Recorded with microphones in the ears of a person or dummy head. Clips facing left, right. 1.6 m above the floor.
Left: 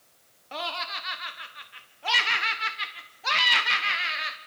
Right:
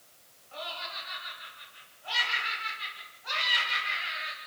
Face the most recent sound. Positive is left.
turn(degrees=85)